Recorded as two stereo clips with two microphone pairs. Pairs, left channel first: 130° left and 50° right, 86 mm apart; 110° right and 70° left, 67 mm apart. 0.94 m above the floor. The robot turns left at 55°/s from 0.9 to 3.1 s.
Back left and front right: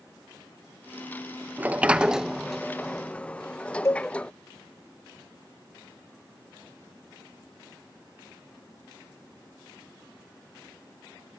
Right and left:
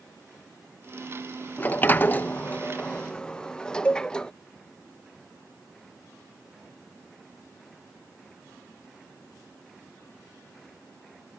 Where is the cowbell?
Straight behind.